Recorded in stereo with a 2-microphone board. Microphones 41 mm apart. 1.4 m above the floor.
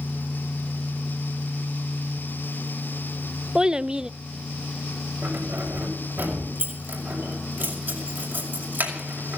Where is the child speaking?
20° right (ahead or behind), 0.5 m.